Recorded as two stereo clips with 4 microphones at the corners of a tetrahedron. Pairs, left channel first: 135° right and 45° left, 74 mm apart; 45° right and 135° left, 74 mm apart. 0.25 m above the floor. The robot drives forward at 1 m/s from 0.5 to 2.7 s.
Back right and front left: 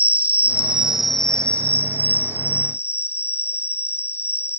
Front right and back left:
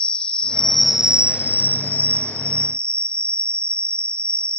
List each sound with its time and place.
0.0 s an insect: 15° left; by 4.6 s 175° left